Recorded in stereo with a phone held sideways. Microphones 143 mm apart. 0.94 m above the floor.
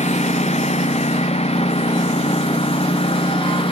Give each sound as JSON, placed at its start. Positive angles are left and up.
{"t": 0.0, "sound": "a lawn mower", "side_deg": 50}